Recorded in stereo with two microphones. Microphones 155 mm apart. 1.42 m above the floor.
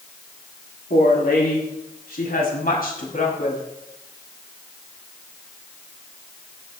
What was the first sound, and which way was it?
A woman speaking, 80° left.